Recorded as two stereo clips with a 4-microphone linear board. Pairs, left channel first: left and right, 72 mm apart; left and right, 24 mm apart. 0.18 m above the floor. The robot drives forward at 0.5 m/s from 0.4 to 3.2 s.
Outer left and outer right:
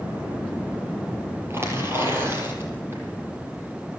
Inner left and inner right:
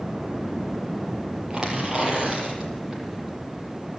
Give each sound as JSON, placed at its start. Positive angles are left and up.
{"t": 1.5, "sound": "tearing paper", "side_deg": -35, "distance_m": 7.0}